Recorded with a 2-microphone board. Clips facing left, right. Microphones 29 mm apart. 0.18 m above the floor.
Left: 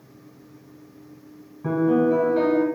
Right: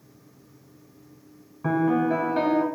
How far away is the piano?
About 0.7 m.